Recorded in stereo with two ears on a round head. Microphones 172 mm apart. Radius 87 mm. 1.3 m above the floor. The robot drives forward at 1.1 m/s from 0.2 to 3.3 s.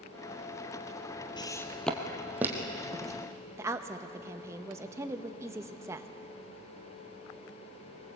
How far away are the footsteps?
About 1.8 m.